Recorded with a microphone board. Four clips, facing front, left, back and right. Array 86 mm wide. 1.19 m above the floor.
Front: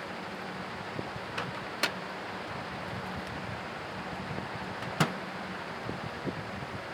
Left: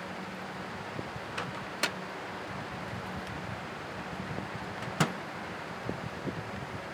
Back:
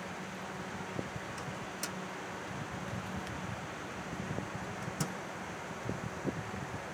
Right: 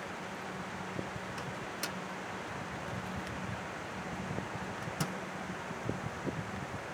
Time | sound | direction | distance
1.4 | a microwave | 35° left | ?